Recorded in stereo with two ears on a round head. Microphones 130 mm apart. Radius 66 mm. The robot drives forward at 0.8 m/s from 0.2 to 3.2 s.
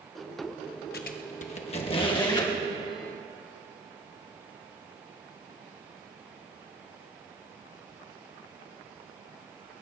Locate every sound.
0.9 s a squeak: 75° left (ahead or behind), 0.9 m; by 2.5 s 30° left (ahead or behind), 1.7 m